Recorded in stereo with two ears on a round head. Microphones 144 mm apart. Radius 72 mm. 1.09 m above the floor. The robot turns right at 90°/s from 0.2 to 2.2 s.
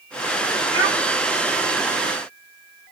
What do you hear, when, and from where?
0.7 s a child speaking: 80° right, 1.7 m; by 1.0 s 75° right (ahead or behind), 1.7 m